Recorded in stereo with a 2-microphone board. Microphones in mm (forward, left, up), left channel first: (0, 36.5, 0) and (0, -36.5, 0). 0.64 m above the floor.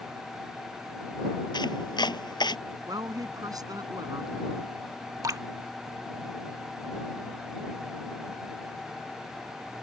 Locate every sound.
1.5 s chopping: 80° left
2.9 s a woman speaking: 60° right (ahead or behind)
5.2 s dripping: 55° right (ahead or behind)